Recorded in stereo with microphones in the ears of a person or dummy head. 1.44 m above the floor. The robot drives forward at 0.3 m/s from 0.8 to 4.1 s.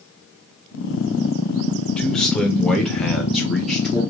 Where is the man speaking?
5° left (ahead or behind), 0.7 m.